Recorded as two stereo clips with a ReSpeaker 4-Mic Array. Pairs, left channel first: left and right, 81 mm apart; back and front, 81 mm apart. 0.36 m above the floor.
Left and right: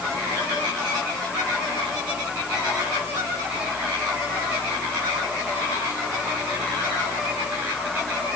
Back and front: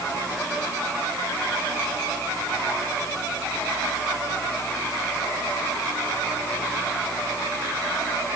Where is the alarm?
No alarm in this recording.